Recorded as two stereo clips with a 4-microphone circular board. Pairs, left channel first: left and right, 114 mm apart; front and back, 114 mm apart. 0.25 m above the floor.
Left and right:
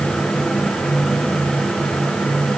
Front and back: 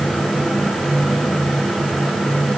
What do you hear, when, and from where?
Only background noise.